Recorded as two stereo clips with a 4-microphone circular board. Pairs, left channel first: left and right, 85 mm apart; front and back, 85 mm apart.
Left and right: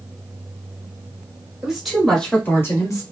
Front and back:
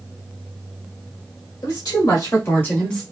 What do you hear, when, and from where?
1.6 s a woman speaking: 10° right, 1.8 m; by 3.0 s 80° left, 1.4 m